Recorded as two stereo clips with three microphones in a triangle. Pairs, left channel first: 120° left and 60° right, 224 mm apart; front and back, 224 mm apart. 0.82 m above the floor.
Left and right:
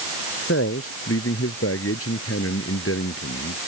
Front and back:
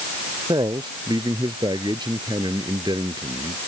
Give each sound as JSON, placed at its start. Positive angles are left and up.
{"t": 0.5, "sound": "a man speaking", "azimuth_deg": 110}